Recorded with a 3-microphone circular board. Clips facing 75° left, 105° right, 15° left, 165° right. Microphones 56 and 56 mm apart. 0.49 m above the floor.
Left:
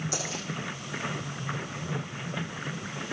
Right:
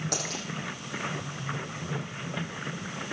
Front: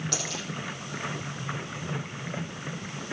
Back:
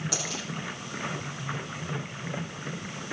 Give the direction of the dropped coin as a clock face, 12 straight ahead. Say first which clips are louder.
Even, even; 3 o'clock.